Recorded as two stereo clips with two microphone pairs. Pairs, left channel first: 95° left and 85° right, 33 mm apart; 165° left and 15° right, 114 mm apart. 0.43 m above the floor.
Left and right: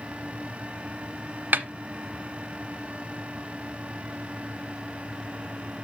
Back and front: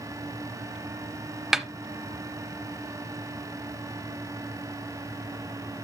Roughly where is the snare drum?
Right.